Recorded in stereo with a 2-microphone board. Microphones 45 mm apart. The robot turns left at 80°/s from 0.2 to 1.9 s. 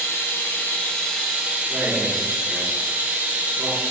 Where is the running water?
80° left, 2 m; by 3.9 s 55° right, 2 m.